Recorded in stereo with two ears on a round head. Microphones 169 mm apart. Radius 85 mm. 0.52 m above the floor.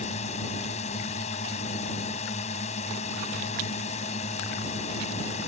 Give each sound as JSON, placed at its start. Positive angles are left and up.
{"t": 0.0, "sound": "a drone", "side_deg": 35}